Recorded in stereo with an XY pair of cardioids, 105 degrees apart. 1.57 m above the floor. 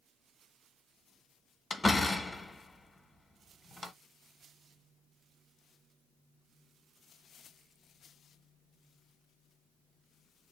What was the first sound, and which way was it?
A door slam, 20° left.